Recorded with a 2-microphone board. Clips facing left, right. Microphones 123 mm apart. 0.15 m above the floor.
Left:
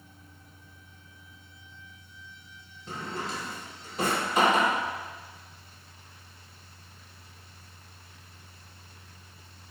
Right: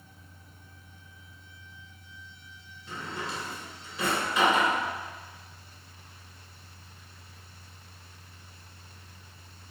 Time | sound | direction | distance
2.9 | a drawer | 45° left (ahead or behind) | 0.5 m